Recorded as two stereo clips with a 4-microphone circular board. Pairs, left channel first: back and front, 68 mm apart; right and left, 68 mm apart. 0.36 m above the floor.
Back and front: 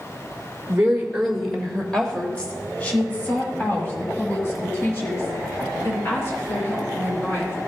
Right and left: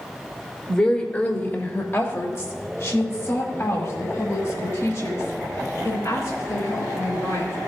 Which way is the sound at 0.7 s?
35° right.